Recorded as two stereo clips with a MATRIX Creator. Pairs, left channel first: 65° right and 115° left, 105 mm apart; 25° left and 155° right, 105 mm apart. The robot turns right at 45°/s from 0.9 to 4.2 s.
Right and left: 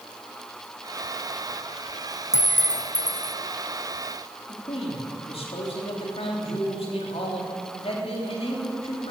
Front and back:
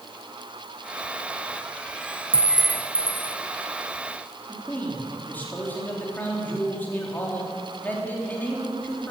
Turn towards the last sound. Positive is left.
turn(degrees=-50)